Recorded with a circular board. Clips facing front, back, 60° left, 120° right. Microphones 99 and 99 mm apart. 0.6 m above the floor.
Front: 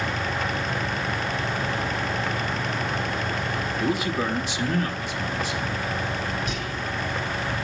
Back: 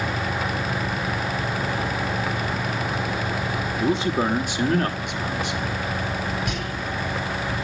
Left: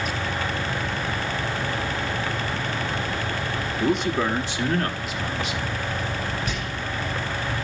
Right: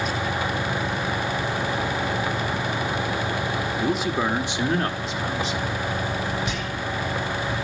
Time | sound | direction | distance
3.8 | a man speaking | 140° left | 1.1 m
6.5 | whispering | 170° left | 5 m